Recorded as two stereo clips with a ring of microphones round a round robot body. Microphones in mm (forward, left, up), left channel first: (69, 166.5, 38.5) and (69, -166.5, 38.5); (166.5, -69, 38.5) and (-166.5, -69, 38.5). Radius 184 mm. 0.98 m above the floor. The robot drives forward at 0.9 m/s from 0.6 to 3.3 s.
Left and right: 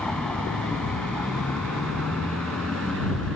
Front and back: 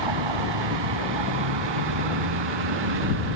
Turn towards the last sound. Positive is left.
turn(degrees=180)